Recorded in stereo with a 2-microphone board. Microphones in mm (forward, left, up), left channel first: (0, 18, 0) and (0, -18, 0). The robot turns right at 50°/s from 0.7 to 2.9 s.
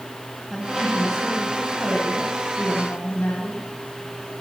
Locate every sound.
0.5 s a woman speaking: 10° right, 9.5 m; by 3.6 s 100° left, 9.5 m